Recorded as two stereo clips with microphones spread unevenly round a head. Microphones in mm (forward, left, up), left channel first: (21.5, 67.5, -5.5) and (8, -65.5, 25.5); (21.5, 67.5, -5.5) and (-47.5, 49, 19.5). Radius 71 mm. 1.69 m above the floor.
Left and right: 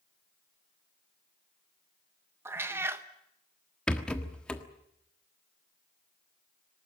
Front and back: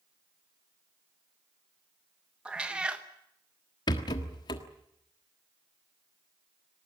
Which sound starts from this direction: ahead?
A rattle, at 3.9 s.